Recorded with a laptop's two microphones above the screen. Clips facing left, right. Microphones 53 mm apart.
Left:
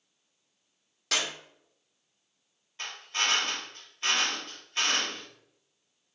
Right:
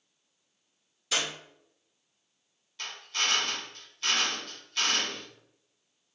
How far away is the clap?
About 2 m.